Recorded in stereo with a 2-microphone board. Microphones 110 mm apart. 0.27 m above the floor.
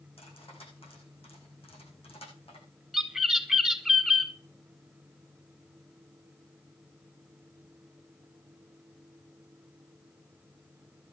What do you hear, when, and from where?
0.2 s cutlery clinking: 60° left (ahead or behind), 9 m
2.9 s a bird: centre (ahead or behind), 1.6 m